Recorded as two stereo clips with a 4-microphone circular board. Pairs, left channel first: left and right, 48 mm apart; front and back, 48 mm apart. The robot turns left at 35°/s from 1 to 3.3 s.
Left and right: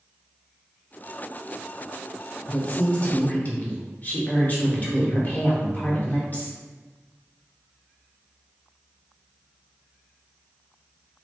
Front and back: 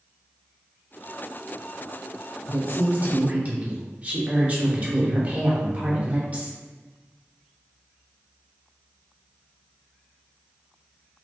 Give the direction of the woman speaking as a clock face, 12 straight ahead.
7 o'clock.